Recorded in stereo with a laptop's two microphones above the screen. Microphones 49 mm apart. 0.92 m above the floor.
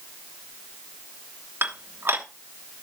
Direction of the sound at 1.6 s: 50° right (ahead or behind).